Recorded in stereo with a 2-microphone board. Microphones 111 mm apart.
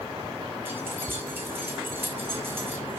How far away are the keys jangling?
About 2.5 m.